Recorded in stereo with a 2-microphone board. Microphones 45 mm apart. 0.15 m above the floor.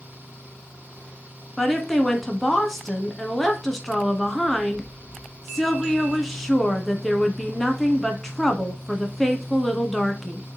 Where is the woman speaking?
5° left (ahead or behind), 1.1 m.